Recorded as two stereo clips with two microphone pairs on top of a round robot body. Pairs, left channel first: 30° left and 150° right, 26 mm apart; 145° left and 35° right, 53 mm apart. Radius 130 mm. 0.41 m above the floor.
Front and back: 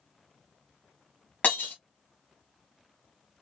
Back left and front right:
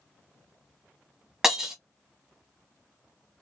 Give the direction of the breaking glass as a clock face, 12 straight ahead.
11 o'clock.